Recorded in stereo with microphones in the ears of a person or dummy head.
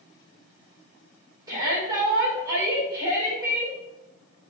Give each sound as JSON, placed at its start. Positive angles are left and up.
{"t": 1.5, "sound": "a shout", "side_deg": -15, "distance_m": 4.5}